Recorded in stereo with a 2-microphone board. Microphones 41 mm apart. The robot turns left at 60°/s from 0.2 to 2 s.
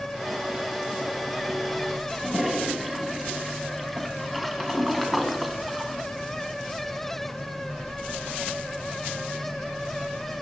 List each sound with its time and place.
2.1 s a toilet flushing: centre (ahead or behind), 3 m